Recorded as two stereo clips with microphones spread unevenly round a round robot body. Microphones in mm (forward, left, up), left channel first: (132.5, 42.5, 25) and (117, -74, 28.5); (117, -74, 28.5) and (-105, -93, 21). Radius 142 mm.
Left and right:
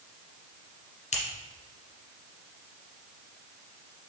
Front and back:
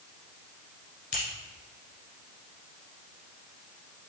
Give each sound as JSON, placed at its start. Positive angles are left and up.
{"t": 1.1, "sound": "scissors", "azimuth_deg": 70, "distance_m": 1.2}